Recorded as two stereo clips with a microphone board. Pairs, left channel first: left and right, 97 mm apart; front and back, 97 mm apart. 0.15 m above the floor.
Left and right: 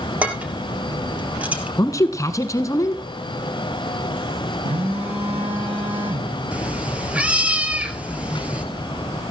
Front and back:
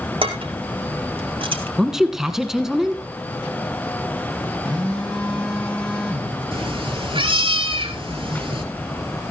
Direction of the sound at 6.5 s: 165° right.